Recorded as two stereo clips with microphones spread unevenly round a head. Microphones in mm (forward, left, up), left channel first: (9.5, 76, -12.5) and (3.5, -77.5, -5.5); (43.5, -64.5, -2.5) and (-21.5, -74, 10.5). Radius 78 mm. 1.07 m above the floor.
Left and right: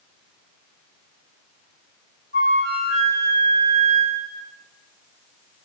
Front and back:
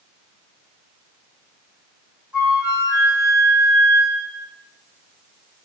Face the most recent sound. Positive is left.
turn(degrees=-95)